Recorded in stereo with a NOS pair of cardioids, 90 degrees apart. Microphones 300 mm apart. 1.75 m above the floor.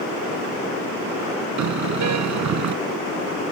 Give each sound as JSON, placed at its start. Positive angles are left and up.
{"t": 1.6, "sound": "a car horn", "azimuth_deg": -60}